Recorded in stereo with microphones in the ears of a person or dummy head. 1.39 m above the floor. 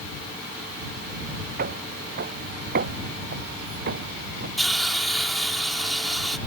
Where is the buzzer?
I don't hear a buzzer.